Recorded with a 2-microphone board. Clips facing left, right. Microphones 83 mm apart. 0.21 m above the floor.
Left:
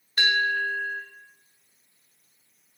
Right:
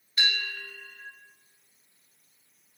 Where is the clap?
No clap in this recording.